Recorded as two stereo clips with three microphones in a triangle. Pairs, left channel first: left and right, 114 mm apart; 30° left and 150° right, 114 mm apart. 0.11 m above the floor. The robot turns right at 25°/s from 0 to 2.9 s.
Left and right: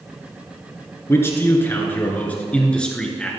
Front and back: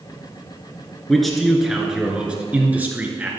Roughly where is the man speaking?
Behind left.